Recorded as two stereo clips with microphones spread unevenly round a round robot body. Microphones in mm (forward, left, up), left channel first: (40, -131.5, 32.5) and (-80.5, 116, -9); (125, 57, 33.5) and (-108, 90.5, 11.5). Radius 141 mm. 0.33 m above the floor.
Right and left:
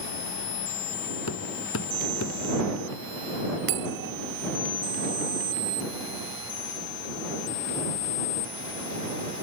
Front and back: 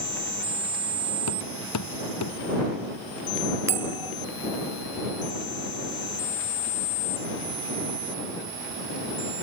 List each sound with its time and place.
1.3 s hammering: 15° right
3.7 s a bell: 100° left